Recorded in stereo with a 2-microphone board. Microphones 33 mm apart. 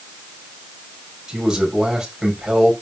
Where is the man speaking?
20° right (ahead or behind), 5.5 m.